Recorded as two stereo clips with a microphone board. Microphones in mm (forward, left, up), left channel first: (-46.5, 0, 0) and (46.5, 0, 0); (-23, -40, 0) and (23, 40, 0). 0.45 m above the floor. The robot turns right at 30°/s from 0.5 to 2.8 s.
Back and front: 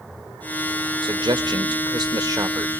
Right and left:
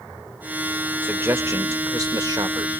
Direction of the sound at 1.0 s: 5° right.